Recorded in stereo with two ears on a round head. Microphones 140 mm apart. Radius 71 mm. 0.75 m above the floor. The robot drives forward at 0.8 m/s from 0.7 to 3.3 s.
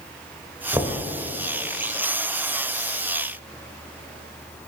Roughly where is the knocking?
Centre.